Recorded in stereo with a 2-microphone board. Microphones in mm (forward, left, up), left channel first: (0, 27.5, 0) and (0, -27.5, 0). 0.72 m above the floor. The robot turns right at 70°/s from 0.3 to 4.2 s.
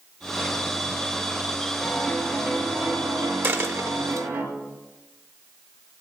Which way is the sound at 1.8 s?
160° left.